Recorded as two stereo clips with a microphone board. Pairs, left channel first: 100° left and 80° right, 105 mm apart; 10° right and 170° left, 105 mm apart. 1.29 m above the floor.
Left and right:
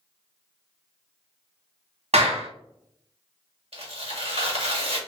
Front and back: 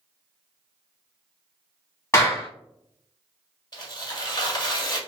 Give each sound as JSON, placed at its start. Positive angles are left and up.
{"t": 2.1, "sound": "a clap", "azimuth_deg": -70, "distance_m": 1.3}
{"t": 3.7, "sound": "tearing paper", "azimuth_deg": -55, "distance_m": 1.4}